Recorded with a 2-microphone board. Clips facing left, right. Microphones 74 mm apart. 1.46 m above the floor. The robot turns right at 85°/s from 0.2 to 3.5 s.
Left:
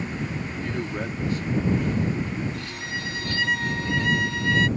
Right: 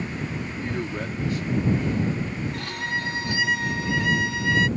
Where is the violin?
85° right; by 4.7 s 5° right.